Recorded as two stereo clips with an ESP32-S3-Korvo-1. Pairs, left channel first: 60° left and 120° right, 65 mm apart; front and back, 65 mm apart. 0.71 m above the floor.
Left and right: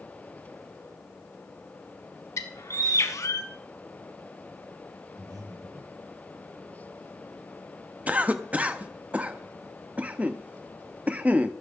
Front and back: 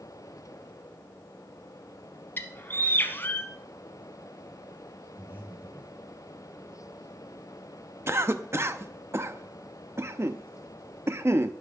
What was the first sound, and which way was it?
A bird, 50° left.